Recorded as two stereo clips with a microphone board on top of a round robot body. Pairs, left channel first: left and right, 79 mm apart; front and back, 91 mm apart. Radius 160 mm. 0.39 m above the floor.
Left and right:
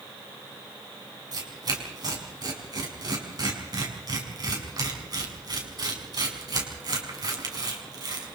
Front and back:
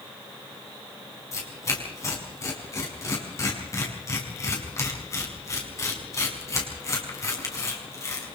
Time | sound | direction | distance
1.3 | tearing paper | 55° right | 5.5 m